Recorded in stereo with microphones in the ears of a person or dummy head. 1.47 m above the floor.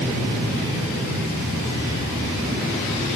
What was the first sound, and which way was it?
Only background noise.